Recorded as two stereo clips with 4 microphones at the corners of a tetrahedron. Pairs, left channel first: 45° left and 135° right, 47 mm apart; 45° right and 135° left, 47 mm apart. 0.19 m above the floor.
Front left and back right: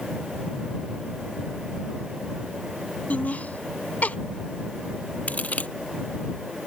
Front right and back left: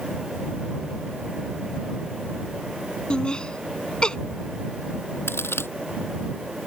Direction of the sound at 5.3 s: 15° right.